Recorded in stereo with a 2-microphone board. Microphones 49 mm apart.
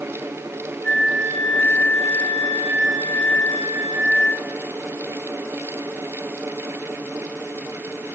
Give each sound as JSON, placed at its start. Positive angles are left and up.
{"t": 0.8, "sound": "a flute", "side_deg": 60, "distance_m": 8.0}